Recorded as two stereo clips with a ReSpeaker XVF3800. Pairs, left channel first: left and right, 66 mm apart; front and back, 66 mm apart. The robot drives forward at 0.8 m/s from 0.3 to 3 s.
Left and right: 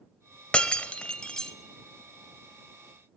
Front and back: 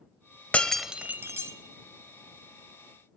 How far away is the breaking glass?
About 0.6 m.